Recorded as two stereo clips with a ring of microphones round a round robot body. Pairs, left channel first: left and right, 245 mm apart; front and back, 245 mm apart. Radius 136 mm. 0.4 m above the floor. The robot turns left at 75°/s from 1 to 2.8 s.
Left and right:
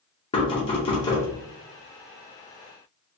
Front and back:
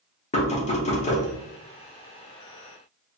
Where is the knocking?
40° left, 0.7 m; by 1.3 s 20° left, 0.7 m.